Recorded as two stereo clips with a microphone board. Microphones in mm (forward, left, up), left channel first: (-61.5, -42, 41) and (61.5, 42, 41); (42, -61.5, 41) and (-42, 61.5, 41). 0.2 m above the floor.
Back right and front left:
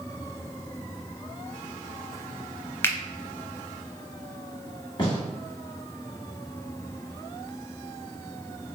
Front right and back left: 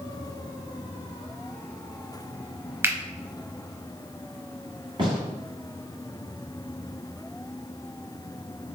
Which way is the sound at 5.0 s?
170° left.